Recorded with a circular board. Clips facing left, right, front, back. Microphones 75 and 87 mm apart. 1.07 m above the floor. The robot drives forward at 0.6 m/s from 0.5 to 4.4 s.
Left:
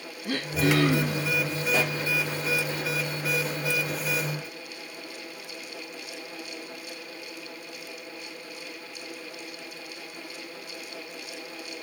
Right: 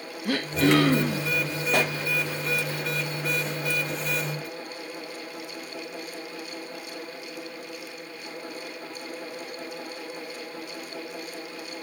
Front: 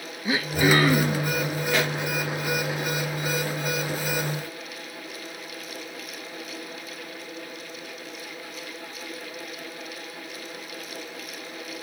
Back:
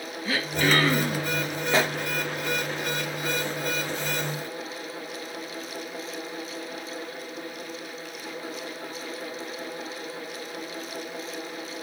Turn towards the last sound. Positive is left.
turn(degrees=-150)